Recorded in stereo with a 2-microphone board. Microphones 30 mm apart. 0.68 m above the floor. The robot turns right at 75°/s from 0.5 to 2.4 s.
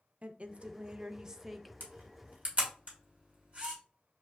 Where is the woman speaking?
90° right, 0.5 m; by 1.7 s straight ahead, 0.5 m.